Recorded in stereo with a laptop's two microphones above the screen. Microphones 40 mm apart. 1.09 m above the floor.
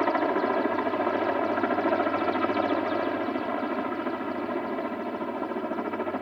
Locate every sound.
0.0 s a helicopter: centre (ahead or behind)